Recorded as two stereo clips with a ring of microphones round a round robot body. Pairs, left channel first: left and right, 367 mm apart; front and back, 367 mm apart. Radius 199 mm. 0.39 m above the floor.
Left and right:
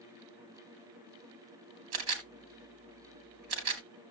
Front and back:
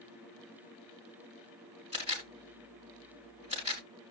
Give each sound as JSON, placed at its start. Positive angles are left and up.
{"t": 1.9, "sound": "a camera shutter", "azimuth_deg": -105, "distance_m": 3.0}